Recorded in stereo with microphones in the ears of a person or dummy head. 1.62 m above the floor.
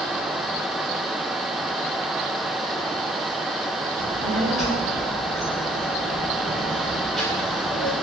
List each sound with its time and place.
4.0 s a child speaking: centre (ahead or behind), 1.1 m